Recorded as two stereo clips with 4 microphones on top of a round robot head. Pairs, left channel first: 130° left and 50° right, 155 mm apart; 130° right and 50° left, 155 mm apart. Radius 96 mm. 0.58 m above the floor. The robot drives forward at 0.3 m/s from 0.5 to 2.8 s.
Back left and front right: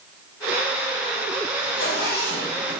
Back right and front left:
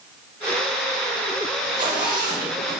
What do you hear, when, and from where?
1.6 s a zipper: 110° left, 3.5 m; by 2.8 s 115° left, 3.5 m